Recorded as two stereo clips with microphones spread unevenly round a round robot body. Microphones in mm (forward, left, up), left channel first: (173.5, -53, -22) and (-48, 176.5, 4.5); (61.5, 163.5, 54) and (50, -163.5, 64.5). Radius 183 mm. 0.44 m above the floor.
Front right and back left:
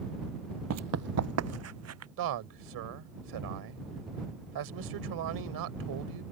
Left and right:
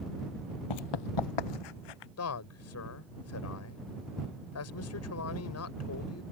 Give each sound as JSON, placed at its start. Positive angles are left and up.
{"t": 0.7, "sound": "running footsteps", "azimuth_deg": 95}
{"t": 2.2, "sound": "a man speaking", "azimuth_deg": 125}